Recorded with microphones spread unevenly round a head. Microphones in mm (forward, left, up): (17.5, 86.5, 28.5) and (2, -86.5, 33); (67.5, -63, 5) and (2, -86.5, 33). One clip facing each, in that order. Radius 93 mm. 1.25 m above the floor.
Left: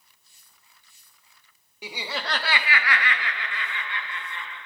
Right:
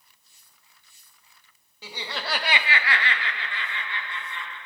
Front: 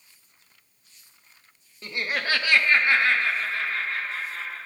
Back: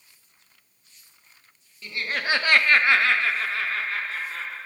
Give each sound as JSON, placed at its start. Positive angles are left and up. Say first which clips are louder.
{"t": 1.8, "sound": "laughter", "louder": "left 2 dB, even", "azimuth_deg": 10, "distance_m": 0.8}